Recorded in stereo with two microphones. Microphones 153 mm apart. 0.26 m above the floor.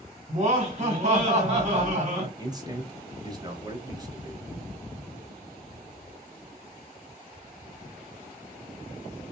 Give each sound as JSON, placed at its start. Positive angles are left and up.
{"t": 0.3, "sound": "laughter", "side_deg": -40, "distance_m": 2.0}
{"t": 2.4, "sound": "a man speaking", "side_deg": -25, "distance_m": 1.0}